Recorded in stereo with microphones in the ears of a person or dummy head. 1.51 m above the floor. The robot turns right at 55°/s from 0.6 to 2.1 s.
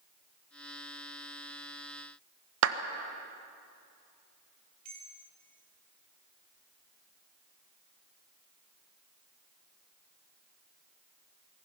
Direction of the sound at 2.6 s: 80° right.